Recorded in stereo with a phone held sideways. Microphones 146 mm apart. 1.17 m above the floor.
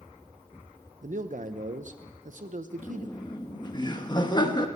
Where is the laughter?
30° left (ahead or behind), 1.1 m.